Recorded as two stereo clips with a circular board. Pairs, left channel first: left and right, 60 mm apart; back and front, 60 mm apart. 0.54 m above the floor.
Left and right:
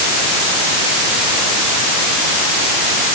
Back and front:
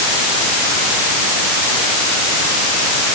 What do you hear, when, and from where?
Only background noise.